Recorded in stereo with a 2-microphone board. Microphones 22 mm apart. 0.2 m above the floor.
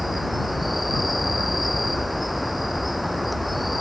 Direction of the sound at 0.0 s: 5° right (ahead or behind).